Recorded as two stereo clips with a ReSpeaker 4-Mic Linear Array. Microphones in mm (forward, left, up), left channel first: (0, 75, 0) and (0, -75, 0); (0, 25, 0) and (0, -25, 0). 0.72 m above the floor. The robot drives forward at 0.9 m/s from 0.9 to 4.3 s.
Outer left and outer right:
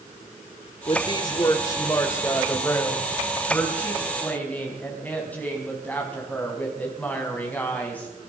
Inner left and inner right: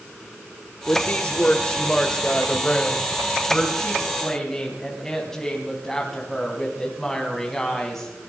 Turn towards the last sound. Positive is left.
turn(degrees=10)  # may be behind; listen again after turning